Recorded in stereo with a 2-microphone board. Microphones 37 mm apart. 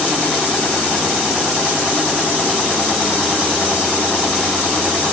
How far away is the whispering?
I don't hear whispering.